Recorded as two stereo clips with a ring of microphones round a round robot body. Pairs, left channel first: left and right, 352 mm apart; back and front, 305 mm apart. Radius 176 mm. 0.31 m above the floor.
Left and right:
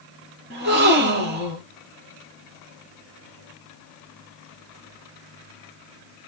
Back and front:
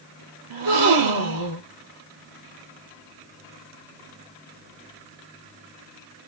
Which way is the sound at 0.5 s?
30° right.